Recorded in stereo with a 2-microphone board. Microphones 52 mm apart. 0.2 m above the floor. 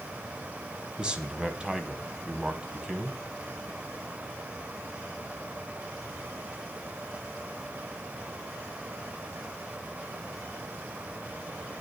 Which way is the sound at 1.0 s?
15° right (ahead or behind).